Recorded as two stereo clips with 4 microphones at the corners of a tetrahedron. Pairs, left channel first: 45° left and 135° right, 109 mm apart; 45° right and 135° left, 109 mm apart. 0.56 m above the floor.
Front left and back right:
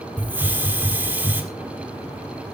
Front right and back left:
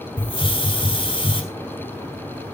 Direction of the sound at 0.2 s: 65° right.